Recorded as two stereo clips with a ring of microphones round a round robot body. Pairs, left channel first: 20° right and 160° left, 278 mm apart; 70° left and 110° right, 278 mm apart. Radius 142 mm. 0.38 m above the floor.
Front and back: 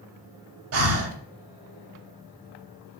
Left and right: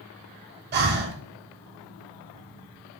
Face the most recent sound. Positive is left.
turn(degrees=-165)